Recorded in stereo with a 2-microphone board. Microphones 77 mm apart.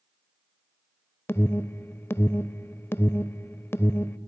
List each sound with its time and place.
1.3 s an alarm: 25° left (ahead or behind), 0.6 m